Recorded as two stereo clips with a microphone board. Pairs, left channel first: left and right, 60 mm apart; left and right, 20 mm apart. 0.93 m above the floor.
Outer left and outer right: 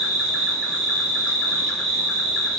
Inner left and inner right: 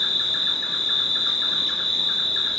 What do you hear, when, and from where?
0.0 s an insect: 5° right (ahead or behind), 1.3 m